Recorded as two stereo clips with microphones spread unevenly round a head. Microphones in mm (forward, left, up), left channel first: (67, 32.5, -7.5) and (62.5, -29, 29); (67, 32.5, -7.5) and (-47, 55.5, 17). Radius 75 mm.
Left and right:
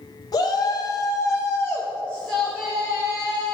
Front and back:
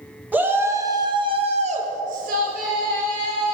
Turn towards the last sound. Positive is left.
turn(degrees=-165)